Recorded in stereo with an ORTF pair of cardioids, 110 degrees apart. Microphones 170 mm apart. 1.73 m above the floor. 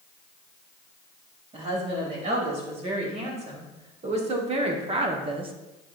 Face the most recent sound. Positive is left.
turn(degrees=-30)